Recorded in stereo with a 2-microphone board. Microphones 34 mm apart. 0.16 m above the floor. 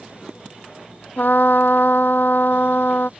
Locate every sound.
1.2 s a trumpet: 70° left (ahead or behind)